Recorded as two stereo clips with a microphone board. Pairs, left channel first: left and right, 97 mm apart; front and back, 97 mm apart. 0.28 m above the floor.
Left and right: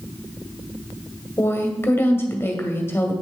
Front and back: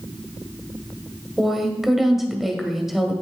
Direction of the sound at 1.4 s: 95° left.